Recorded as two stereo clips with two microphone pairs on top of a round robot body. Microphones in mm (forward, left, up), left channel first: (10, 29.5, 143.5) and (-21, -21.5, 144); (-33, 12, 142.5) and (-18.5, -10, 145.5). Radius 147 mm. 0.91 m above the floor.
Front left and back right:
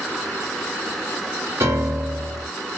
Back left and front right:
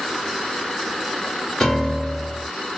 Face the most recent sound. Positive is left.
turn(degrees=-170)